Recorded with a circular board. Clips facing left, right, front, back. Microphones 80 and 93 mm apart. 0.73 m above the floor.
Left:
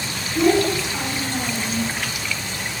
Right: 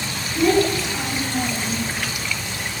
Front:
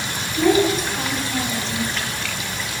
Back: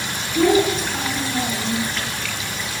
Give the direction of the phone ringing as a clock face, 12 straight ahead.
No phone ringing in this recording.